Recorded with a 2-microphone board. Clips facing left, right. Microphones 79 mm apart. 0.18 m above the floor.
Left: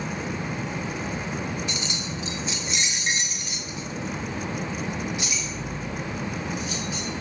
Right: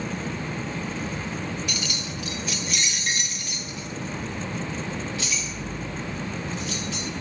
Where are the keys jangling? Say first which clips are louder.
Left 1 dB; 25° left (ahead or behind), 1.3 m; by 7.1 s 15° left (ahead or behind), 4 m.